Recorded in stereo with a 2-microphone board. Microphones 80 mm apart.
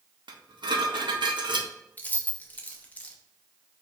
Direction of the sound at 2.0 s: 20° left (ahead or behind).